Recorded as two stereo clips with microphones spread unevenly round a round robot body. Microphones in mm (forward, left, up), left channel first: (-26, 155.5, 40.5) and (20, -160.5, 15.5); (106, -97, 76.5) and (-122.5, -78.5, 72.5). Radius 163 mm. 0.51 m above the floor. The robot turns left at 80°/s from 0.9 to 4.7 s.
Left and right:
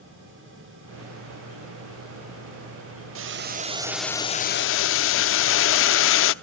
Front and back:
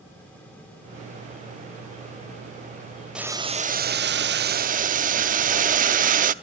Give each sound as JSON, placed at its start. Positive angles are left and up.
{"t": 3.1, "sound": "boiling", "azimuth_deg": -100, "distance_m": 0.6}